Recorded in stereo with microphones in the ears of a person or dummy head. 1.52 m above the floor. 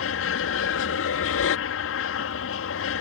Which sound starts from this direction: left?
An aircraft, at 0.0 s.